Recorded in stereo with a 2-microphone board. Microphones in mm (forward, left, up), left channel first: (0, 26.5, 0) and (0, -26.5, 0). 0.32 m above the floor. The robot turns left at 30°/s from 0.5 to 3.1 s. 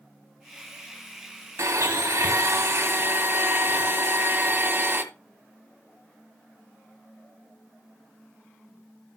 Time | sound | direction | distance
1.6 | a blender | 85° right | 1.5 m